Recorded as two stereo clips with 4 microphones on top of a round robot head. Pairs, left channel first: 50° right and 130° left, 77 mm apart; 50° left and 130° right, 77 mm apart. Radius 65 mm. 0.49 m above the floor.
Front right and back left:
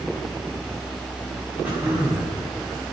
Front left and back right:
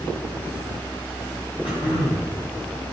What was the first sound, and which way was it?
Throat clearing, 60° left.